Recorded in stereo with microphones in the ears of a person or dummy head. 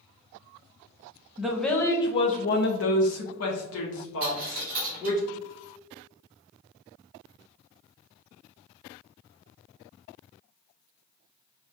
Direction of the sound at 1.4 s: Centre (ahead or behind).